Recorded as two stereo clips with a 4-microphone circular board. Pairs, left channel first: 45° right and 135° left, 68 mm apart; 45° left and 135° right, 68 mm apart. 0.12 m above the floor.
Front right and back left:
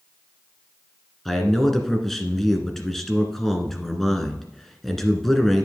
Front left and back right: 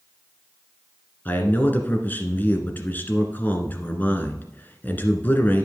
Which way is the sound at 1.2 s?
35° left.